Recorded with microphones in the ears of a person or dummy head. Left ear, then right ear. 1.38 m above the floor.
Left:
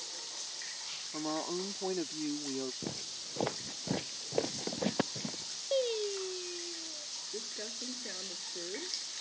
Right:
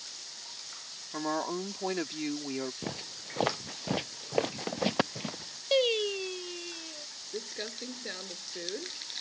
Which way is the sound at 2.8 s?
40° right (ahead or behind).